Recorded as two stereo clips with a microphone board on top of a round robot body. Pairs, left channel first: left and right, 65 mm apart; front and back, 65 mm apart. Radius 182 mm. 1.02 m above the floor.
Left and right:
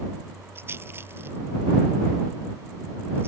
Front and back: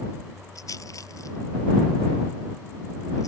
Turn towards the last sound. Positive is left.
turn(degrees=-35)